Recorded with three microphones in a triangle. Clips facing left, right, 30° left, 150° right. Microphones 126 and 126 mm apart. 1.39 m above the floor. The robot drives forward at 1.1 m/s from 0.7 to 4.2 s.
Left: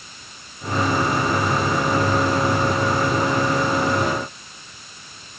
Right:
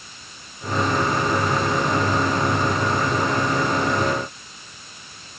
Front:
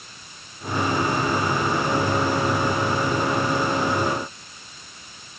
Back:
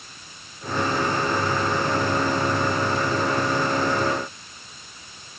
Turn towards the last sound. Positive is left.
No sound to turn to.